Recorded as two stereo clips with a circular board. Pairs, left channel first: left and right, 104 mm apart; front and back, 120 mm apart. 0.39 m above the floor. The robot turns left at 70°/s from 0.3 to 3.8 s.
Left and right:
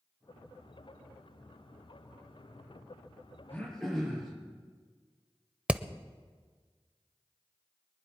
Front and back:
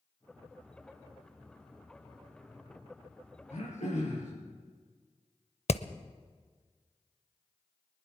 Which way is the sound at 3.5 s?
20° left.